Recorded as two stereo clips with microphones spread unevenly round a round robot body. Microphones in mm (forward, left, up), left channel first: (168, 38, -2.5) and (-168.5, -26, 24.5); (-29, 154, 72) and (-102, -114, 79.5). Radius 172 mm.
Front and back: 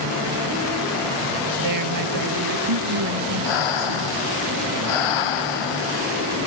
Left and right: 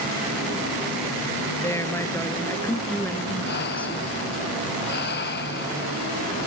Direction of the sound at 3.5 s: 15° left.